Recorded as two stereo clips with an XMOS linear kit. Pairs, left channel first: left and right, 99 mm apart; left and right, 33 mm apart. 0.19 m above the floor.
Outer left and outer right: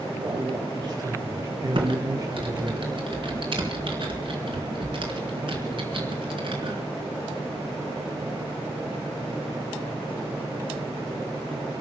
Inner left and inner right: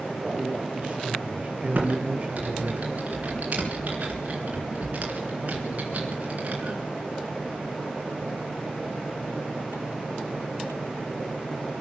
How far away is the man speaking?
About 5.5 m.